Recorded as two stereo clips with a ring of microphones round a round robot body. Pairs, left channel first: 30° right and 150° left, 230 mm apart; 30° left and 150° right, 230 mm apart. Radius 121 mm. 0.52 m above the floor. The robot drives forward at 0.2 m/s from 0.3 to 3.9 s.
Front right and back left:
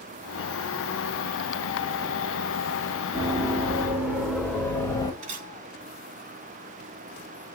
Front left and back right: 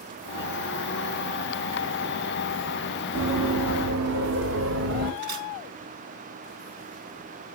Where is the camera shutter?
150° right, 7 m.